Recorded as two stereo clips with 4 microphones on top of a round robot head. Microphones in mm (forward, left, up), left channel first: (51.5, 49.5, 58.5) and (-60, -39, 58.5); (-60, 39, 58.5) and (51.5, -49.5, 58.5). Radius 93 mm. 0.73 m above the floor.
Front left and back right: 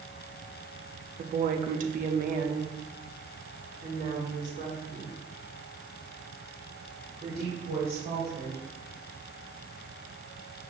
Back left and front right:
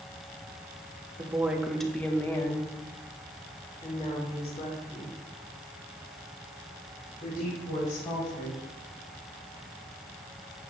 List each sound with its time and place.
1.2 s a woman speaking: 110° right, 1.0 m; by 8.7 s 170° left, 4 m